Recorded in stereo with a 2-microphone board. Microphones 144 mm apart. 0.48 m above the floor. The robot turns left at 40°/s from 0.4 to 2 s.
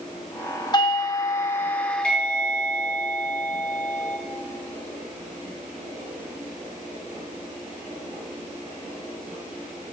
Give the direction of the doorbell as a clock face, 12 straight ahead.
10 o'clock.